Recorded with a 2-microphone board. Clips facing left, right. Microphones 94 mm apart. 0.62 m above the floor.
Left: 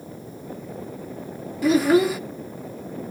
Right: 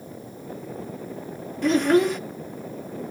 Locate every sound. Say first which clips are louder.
1.6 s a child speaking: left 1 dB; 5° left (ahead or behind), 0.5 m